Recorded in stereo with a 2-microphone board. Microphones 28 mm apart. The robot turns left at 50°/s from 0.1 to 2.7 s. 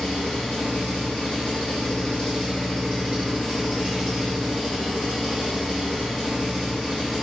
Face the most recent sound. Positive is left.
turn(degrees=0)